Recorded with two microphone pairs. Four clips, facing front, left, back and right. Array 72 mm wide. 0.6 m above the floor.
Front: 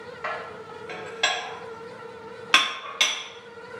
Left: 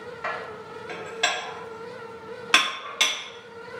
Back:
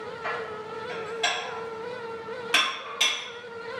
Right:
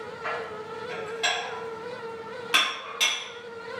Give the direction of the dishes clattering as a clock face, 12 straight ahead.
11 o'clock.